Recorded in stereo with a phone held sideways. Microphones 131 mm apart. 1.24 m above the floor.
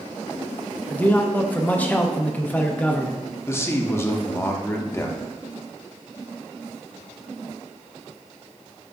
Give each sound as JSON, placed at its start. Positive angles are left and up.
{"t": 0.9, "sound": "a man speaking", "side_deg": 10, "distance_m": 0.5}
{"t": 3.5, "sound": "a man speaking", "side_deg": 20, "distance_m": 0.5}